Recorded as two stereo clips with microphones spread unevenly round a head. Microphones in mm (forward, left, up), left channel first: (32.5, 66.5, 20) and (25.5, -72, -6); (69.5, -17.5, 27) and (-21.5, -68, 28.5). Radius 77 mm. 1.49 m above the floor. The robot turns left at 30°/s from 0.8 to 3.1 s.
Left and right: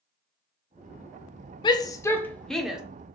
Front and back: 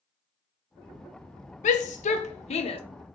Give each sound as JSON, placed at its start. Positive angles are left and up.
{"t": 1.6, "sound": "a shout", "azimuth_deg": 25, "distance_m": 0.7}